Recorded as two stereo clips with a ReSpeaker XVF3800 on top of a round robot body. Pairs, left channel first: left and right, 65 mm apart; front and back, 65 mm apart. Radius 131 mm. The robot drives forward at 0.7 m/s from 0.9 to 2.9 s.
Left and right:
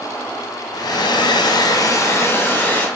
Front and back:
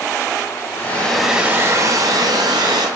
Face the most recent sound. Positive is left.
turn(degrees=155)